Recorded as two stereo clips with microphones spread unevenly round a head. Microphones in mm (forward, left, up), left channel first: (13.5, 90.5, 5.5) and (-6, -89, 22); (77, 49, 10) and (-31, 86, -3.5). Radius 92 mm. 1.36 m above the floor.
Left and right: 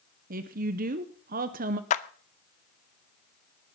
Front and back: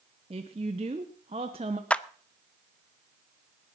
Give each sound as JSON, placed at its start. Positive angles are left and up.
{"t": 0.3, "sound": "a woman speaking", "azimuth_deg": -145, "distance_m": 0.8}
{"t": 1.9, "sound": "a clap", "azimuth_deg": 45, "distance_m": 0.6}